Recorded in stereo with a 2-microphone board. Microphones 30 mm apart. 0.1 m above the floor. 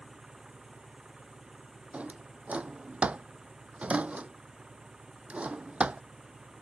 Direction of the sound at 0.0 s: 20° right (ahead or behind).